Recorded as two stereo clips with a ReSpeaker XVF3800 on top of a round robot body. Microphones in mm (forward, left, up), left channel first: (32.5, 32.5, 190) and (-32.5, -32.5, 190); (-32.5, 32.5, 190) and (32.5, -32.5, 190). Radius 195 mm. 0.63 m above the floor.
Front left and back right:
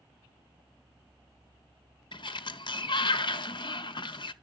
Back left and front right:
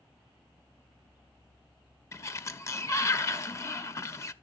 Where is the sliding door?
75° left, 0.8 m.